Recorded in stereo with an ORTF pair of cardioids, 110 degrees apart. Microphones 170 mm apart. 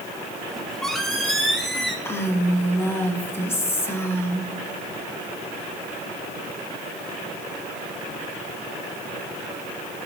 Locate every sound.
0.5 s a squeak: straight ahead, 1.8 m
2.0 s a woman speaking: 15° left, 1.9 m